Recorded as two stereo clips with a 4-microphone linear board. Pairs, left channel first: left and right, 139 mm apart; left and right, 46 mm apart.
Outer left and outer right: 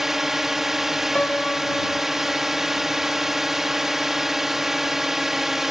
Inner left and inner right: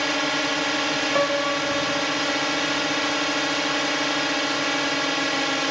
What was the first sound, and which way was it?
A drone, 5° right (ahead or behind).